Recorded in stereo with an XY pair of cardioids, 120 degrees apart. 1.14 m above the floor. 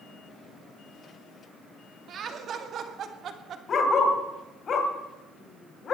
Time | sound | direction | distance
2.1 | laughter | 50° right | 2.5 m
3.7 | a dog barking | 45° left | 2.5 m